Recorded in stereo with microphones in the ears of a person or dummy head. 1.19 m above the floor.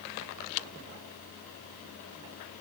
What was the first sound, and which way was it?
Only background noise.